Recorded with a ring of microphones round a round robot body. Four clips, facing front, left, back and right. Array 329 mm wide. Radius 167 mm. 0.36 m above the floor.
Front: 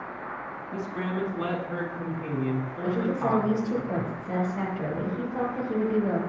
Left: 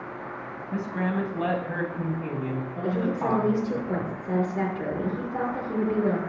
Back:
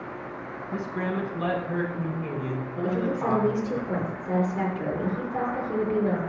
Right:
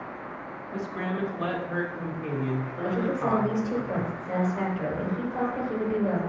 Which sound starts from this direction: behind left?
A woman speaking, at 2.8 s.